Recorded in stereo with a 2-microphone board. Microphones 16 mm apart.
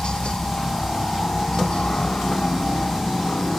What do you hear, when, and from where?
0.0 s a helicopter: 65° left (ahead or behind)